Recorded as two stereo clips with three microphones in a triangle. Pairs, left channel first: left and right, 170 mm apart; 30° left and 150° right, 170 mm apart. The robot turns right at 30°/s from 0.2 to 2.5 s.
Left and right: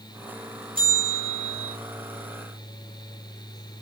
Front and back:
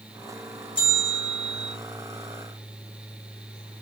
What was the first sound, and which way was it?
A bell, 30° right.